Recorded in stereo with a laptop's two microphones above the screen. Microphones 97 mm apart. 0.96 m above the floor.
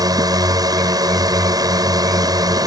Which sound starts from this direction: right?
A drone, at 0.0 s.